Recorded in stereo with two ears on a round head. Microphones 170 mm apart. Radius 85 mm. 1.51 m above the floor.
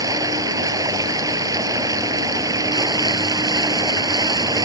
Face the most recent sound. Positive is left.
turn(degrees=-20)  # may be behind; listen again after turning